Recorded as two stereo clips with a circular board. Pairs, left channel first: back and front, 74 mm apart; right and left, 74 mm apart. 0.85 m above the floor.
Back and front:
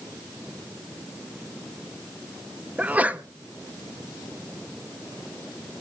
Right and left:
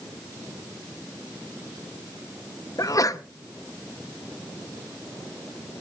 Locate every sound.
2.8 s a sneeze: 65° right, 0.9 m